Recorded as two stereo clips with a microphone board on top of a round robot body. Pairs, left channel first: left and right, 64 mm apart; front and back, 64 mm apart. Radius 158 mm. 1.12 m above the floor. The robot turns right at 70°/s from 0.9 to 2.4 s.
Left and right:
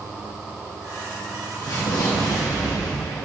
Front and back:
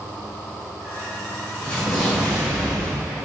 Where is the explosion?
70° left, 2 m; by 3.2 s 125° left, 2 m.